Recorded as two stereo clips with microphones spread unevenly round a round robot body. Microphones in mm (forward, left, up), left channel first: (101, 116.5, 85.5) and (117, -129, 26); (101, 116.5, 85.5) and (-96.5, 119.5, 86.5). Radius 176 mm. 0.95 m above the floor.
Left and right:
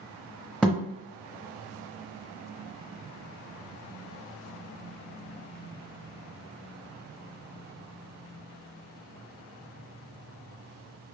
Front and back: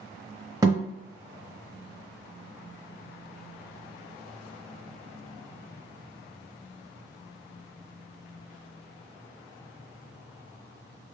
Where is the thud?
135° left, 0.7 m.